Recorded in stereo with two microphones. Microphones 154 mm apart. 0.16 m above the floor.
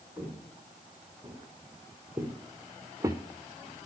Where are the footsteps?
10° right (ahead or behind), 5.5 m; by 3.2 s 25° right (ahead or behind), 1.1 m.